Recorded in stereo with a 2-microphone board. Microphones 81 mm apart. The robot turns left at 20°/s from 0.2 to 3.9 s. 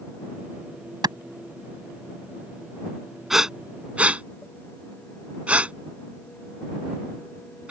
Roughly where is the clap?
Right.